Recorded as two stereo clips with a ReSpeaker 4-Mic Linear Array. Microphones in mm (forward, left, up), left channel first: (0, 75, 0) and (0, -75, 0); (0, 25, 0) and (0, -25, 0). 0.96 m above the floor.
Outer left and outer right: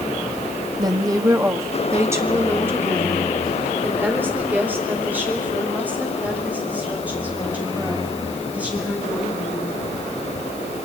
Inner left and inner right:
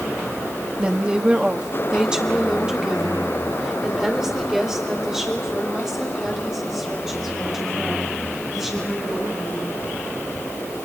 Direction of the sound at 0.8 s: 25° right (ahead or behind).